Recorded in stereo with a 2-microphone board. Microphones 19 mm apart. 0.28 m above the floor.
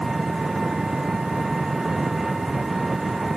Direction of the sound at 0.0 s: 15° right (ahead or behind).